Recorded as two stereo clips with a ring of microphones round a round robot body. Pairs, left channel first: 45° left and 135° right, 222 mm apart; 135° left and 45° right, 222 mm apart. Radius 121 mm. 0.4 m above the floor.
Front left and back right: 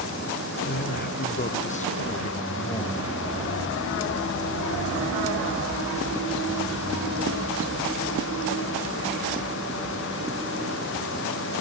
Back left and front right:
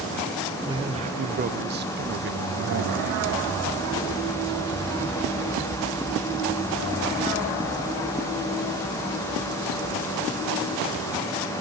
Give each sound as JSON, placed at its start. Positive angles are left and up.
{"t": 0.6, "sound": "a man speaking", "azimuth_deg": 20, "distance_m": 1.2}